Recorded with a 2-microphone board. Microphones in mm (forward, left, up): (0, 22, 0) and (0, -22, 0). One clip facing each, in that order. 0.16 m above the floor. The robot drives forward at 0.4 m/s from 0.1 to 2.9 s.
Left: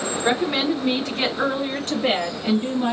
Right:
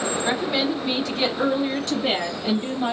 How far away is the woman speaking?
About 1.4 m.